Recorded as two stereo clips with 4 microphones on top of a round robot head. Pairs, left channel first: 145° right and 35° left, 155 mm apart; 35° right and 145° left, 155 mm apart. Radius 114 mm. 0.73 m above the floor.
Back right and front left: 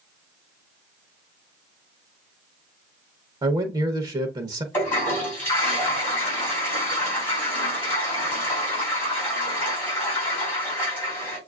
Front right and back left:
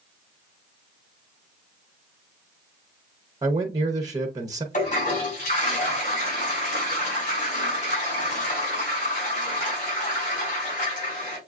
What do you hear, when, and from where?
3.4 s a man speaking: 85° left, 0.8 m
4.7 s a toilet flushing: 70° right, 4 m